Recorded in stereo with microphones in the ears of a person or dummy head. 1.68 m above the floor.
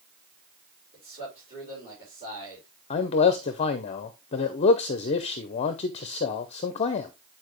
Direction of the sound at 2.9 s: 40° left (ahead or behind).